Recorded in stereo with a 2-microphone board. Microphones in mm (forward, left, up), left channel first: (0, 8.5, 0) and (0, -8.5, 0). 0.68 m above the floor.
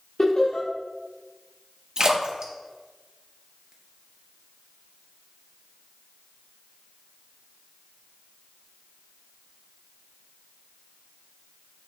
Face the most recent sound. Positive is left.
turn(degrees=-40)  # may be behind; listen again after turning